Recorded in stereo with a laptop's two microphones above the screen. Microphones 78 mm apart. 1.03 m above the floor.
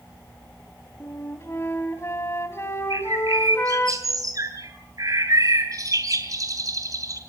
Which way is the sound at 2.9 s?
50° right (ahead or behind).